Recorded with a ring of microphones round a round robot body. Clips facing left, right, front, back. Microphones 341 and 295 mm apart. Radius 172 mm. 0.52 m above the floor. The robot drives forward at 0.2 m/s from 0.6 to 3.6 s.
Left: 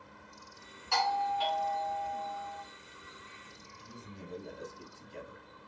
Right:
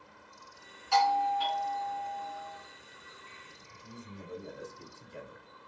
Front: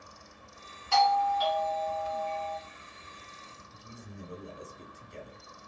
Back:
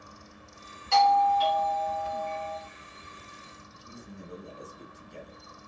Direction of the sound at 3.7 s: 5° right.